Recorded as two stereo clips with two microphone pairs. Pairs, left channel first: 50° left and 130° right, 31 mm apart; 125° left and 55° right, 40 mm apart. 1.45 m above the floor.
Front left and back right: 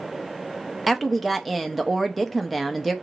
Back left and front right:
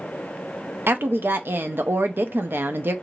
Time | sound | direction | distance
0.9 | a woman speaking | 40° right | 0.6 m